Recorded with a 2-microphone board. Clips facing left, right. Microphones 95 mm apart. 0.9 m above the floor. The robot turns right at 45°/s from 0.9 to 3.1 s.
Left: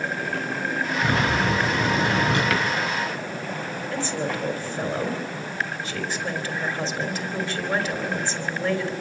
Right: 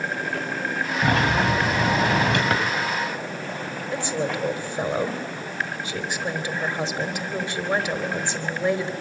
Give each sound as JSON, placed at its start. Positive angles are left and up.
{"t": 1.0, "sound": "a sliding door", "azimuth_deg": -125, "distance_m": 6.0}
{"t": 2.5, "sound": "a drawer", "side_deg": -30, "distance_m": 3.0}
{"t": 3.9, "sound": "a woman speaking", "side_deg": -20, "distance_m": 3.5}